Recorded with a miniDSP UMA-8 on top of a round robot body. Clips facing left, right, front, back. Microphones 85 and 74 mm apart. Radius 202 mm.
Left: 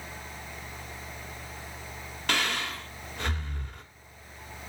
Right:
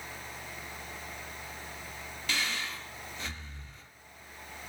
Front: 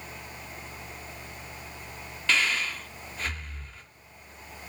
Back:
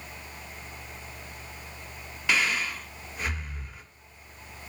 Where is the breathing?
105° left, 1.4 m.